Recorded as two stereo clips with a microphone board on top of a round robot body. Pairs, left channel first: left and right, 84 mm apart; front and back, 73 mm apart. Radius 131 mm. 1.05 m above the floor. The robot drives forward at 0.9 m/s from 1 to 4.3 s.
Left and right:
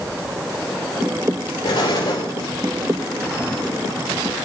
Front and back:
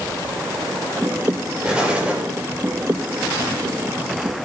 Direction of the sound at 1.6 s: 105° left.